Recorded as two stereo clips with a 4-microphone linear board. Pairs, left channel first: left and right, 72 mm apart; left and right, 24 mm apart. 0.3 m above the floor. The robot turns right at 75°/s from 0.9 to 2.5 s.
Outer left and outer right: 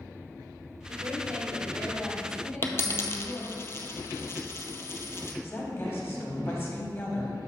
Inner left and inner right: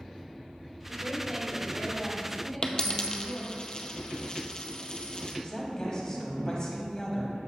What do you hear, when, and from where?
0.9 s a woman speaking: 75° right, 1.6 m; by 3.5 s 45° left, 1.6 m
2.6 s a dropped coin: 40° left (ahead or behind), 0.5 m
5.4 s a woman speaking: 35° left (ahead or behind), 1.3 m